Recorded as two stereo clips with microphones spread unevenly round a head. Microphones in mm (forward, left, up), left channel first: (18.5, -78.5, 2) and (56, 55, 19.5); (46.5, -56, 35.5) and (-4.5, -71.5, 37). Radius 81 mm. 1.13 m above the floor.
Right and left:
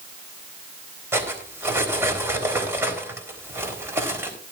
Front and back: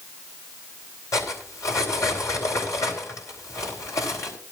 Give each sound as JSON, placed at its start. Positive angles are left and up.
{"t": 1.1, "sound": "cutlery clinking", "azimuth_deg": 0, "distance_m": 4.0}